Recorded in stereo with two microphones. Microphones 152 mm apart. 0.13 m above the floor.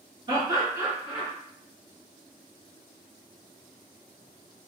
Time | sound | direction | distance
0.3 | laughter | 30° right (ahead or behind) | 1.6 m